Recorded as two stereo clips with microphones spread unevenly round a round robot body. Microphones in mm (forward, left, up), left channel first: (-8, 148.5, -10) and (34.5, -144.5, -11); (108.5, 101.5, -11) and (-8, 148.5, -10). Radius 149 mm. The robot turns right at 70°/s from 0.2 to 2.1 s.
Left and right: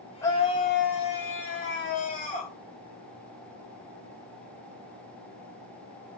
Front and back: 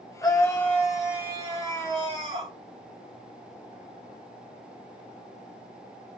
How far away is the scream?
About 1.9 m.